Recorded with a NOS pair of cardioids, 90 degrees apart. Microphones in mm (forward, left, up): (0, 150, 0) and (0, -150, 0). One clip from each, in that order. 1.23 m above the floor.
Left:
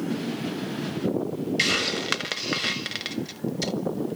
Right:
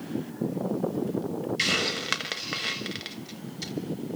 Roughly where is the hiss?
Ahead left.